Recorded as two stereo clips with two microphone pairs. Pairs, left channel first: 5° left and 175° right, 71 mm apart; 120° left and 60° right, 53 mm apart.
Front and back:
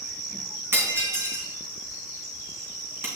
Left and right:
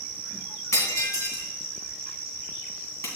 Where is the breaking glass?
135° left, 2.5 m.